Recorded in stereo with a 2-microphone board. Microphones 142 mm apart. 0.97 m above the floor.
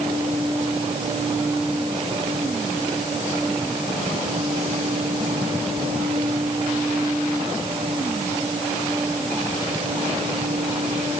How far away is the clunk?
No clunk in this recording.